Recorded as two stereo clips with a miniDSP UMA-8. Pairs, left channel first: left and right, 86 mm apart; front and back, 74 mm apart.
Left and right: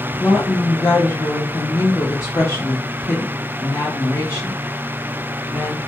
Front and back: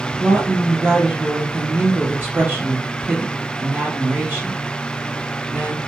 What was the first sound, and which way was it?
A woman speaking, 130° left.